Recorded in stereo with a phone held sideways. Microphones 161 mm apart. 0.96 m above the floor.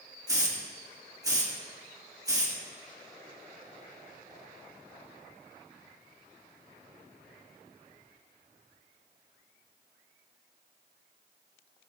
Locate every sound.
0.3 s a hiss: 20° right (ahead or behind), 2 m